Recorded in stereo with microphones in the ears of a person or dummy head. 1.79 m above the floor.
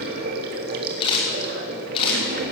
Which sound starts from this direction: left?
A camera shutter, at 1.0 s.